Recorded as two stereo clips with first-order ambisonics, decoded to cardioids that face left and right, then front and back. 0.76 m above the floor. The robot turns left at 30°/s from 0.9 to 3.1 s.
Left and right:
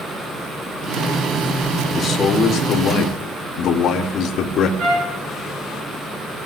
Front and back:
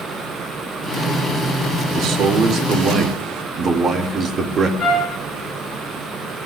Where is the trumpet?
60° right, 7 m.